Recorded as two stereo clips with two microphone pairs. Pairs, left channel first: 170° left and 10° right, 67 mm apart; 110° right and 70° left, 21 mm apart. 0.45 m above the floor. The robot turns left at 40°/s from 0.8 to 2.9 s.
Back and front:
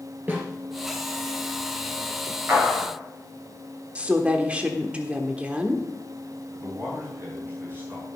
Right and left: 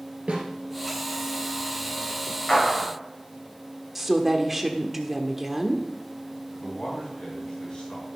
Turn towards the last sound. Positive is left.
turn(degrees=-65)